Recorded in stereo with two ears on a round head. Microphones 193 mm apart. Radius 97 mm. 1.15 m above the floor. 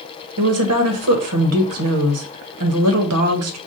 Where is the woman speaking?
75° right (ahead or behind), 1.2 m.